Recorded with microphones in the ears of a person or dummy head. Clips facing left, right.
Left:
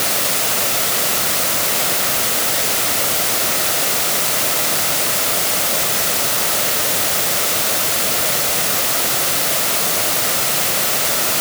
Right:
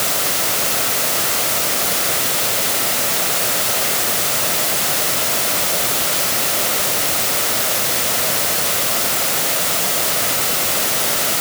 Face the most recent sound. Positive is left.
No sound to turn to.